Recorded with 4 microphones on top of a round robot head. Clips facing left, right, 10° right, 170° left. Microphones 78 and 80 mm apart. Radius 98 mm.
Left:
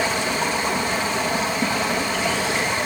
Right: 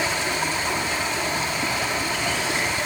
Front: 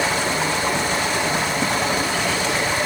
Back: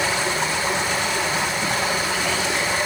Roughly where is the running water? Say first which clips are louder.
Left 2 dB, front 1 dB; ahead left.